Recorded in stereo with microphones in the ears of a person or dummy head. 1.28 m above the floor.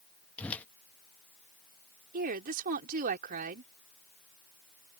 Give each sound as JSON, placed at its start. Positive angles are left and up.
{"t": 0.4, "sound": "a whoosh", "side_deg": 10}
{"t": 2.1, "sound": "a woman speaking", "side_deg": -50}